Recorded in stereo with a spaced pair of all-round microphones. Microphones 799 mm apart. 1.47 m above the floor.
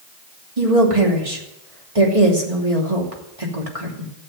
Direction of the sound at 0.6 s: 40° right (ahead or behind).